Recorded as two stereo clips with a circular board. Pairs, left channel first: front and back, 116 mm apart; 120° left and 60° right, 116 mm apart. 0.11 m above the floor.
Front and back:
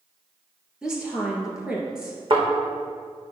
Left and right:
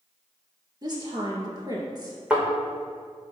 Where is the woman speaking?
100° right, 1.9 m.